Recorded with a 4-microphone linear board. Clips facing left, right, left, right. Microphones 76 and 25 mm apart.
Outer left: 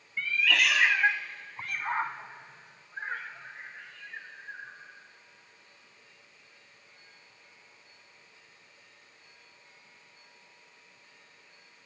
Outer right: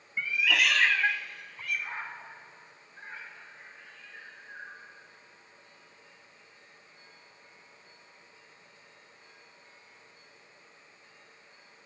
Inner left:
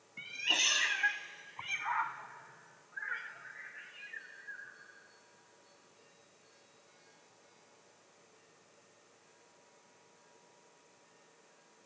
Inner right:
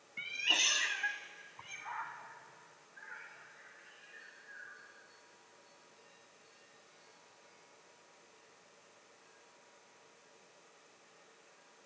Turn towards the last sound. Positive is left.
turn(degrees=75)  # may be behind; listen again after turning